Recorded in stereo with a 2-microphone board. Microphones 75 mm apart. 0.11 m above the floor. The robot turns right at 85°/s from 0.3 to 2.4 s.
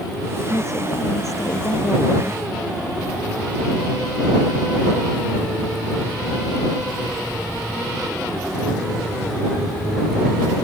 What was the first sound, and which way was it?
A woman speaking, 50° left.